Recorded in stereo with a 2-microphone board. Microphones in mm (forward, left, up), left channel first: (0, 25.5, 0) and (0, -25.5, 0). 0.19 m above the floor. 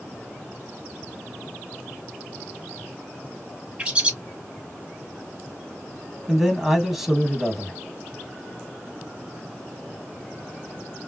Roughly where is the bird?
Right.